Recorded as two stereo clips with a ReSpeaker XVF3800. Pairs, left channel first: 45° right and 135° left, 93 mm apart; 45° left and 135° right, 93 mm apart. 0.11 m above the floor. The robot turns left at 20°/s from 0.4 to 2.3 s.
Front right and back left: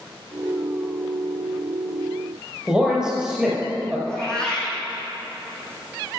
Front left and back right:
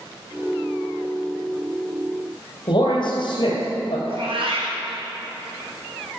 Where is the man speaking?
50° left, 2.5 m.